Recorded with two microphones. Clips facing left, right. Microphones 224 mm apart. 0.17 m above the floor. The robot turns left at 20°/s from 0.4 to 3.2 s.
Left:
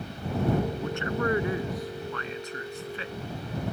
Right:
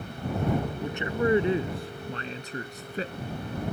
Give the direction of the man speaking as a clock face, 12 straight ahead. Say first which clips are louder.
Right 1 dB; 1 o'clock.